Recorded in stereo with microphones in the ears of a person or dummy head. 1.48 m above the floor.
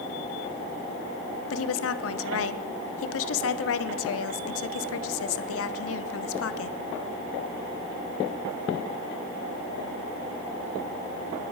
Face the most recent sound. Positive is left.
turn(degrees=80)